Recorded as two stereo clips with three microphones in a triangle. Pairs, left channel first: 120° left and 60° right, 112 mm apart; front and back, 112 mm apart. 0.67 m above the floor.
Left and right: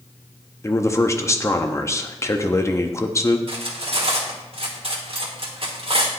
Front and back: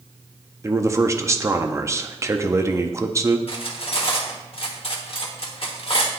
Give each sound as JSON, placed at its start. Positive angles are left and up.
{"t": 0.6, "sound": "a man speaking", "azimuth_deg": 150, "distance_m": 0.5}
{"t": 3.5, "sound": "cutlery clinking", "azimuth_deg": -30, "distance_m": 1.0}